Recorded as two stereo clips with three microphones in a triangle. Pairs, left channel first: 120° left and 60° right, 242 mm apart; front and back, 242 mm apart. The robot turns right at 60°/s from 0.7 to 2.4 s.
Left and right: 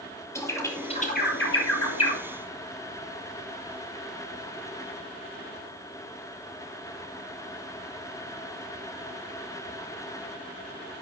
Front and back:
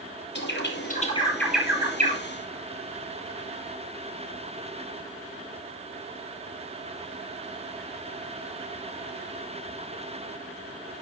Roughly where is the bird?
Ahead left.